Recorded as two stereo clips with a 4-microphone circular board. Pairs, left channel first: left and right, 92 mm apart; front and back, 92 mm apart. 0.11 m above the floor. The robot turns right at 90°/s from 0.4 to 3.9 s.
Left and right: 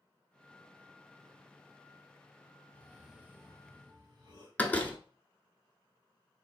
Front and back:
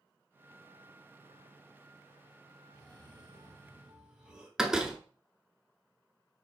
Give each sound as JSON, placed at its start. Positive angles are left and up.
{"t": 2.7, "sound": "a cough", "azimuth_deg": 155, "distance_m": 3.0}
{"t": 4.6, "sound": "a door slam", "azimuth_deg": 110, "distance_m": 0.8}